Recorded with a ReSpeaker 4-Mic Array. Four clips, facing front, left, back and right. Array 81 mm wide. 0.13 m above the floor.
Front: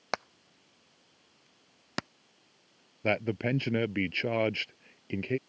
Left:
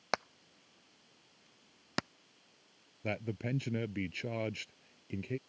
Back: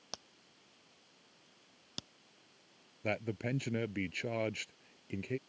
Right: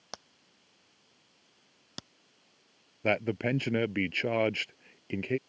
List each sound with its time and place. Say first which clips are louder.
0.1 s hammering: left 12 dB, front 18 dB; 45° left
3.0 s a man speaking: right 9 dB, front 7 dB; 60° right